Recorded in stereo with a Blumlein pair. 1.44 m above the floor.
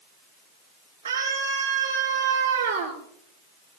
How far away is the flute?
I don't hear a flute.